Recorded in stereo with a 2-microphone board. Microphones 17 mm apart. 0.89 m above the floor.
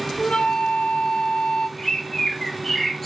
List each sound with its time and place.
0.2 s a flute: 85° left, 3 m
1.8 s a bird: 15° left (ahead or behind), 1.4 m